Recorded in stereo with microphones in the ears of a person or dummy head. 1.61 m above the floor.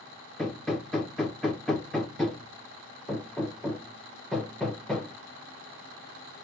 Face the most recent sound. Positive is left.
turn(degrees=5)  # may be behind; listen again after turning